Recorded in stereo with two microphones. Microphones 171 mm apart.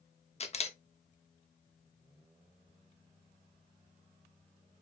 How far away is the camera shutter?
About 0.6 m.